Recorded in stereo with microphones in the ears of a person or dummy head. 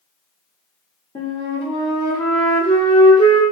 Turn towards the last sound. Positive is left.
turn(degrees=20)  # may be behind; listen again after turning